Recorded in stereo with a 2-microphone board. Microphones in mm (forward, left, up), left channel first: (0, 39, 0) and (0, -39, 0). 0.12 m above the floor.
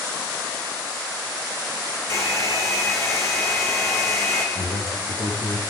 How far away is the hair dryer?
About 4.5 m.